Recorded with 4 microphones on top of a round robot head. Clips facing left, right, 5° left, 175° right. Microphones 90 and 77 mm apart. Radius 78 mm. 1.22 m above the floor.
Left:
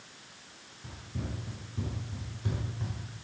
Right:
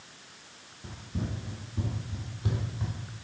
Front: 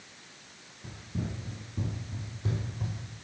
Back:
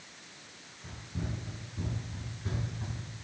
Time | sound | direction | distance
0.8 | running footsteps | 35° right | 1.4 m